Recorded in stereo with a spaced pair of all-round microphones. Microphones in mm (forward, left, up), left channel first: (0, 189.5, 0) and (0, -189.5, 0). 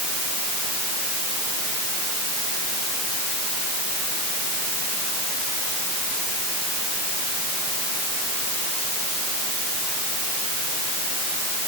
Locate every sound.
Only background noise.